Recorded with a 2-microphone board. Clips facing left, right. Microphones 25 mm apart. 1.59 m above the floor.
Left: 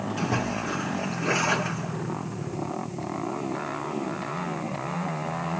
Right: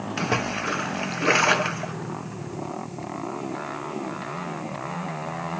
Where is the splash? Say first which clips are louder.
Right 4 dB; 55° right (ahead or behind), 0.7 m.